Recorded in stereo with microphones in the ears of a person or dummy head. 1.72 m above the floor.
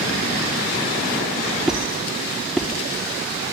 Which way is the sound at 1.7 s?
5° right (ahead or behind).